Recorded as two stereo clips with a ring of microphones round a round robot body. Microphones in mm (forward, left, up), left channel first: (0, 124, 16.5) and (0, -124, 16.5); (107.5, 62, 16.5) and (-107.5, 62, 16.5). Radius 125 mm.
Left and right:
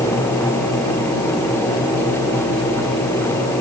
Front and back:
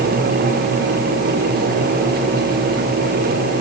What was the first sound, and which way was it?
Only background noise.